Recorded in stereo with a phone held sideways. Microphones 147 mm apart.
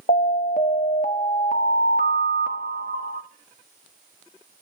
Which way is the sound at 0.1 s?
65° left (ahead or behind).